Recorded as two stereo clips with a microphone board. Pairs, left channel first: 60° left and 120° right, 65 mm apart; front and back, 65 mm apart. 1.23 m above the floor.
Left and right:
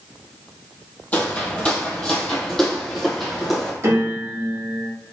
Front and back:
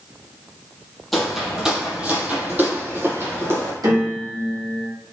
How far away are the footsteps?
About 1.3 m.